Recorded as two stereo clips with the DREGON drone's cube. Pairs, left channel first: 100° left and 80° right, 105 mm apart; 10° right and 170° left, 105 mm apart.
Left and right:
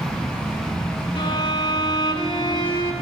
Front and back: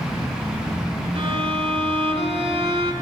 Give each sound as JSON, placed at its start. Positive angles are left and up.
{"t": 1.1, "sound": "a violin", "azimuth_deg": 135, "distance_m": 1.9}